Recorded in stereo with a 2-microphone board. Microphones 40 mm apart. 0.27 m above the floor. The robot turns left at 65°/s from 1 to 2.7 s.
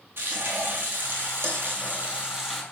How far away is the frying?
About 1.1 m.